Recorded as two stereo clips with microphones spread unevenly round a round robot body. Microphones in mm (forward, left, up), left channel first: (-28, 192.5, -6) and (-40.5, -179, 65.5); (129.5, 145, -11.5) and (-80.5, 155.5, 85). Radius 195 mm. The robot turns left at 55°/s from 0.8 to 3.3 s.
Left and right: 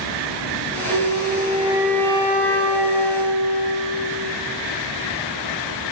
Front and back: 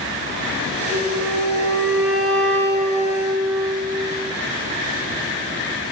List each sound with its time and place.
0.9 s a flute: 125° right, 1.1 m; by 4.3 s 105° left, 1.1 m